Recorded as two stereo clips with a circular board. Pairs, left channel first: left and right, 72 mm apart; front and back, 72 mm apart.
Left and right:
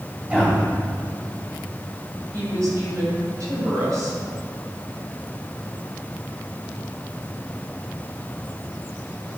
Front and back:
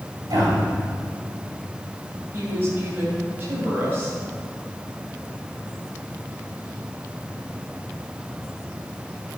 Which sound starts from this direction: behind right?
A woman speaking, at 2.3 s.